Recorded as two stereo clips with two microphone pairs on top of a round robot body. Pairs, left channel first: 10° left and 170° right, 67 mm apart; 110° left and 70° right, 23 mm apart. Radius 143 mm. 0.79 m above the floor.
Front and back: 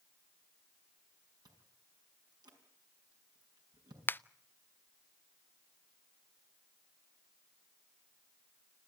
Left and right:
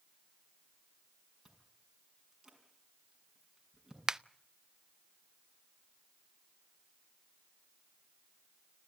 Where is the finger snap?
60° right, 0.6 m.